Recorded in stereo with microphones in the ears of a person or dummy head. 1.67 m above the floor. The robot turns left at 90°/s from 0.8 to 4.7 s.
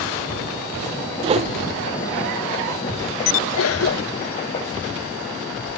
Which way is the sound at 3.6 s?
70° left (ahead or behind).